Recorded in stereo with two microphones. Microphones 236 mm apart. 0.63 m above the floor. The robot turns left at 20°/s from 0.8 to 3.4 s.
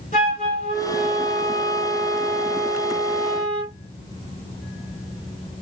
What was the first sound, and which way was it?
A flute, 35° left.